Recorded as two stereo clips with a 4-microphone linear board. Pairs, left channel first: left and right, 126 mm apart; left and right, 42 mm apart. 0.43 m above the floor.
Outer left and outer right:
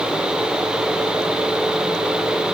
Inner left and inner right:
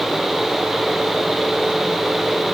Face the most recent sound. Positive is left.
No sound to turn to.